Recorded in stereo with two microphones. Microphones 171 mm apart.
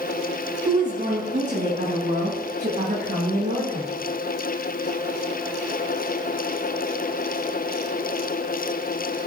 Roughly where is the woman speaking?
Right.